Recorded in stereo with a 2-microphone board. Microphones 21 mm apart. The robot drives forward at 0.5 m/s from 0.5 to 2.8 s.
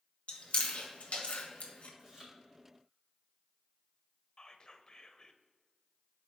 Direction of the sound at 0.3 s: 60° left (ahead or behind).